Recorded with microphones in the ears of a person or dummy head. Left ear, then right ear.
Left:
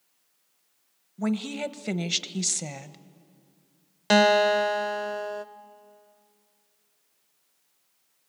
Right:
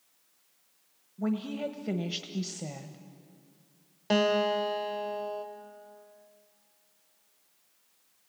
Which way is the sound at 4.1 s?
55° left (ahead or behind).